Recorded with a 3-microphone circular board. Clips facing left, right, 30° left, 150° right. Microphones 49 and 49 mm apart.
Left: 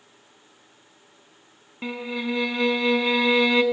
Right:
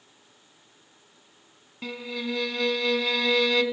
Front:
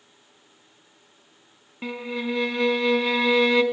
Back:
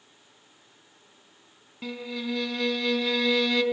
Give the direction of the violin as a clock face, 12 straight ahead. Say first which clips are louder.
Left 4 dB, front 4 dB; 10 o'clock.